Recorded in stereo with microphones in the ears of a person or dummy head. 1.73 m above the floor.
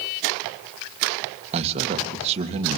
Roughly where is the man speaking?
Right.